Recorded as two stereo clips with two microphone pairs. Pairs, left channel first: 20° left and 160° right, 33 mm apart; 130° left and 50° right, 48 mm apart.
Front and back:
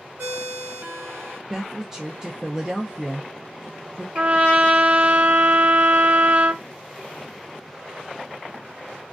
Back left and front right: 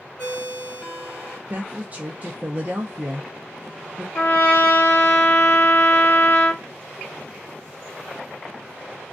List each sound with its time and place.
0.2 s a ringtone: 165° right, 1.3 m
1.5 s a woman speaking: 90° right, 0.6 m
4.2 s a trumpet: 175° left, 1.1 m